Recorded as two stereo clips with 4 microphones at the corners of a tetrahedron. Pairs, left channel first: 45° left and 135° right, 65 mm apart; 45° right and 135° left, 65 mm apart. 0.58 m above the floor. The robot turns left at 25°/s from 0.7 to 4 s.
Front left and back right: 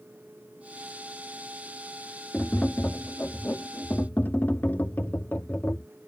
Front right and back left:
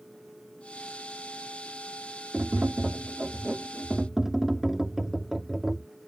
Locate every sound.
2.3 s tapping: 100° left; by 5.9 s 55° left